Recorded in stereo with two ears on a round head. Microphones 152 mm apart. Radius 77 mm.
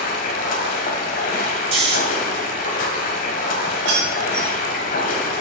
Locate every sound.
0.0 s running water: 50° left (ahead or behind), 1.5 m
1.7 s snoring: 40° right (ahead or behind), 1.7 m
3.9 s keys jangling: 75° right (ahead or behind), 3.5 m